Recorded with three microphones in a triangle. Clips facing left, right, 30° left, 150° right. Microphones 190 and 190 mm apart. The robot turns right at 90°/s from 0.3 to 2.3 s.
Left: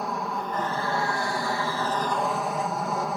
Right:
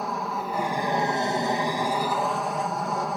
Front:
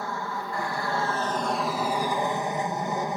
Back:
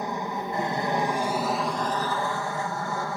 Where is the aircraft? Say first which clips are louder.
Even, back 3 dB; straight behind; by 3.2 s straight ahead.